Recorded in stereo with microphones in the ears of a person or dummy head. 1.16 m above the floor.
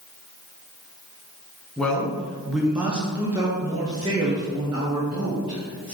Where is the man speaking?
5° left (ahead or behind), 1.0 m; by 5.9 s 25° right (ahead or behind), 1.5 m.